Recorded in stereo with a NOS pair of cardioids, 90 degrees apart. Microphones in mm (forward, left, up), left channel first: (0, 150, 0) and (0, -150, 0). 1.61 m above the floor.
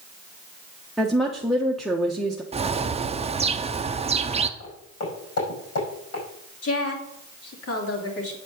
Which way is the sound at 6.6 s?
50° left.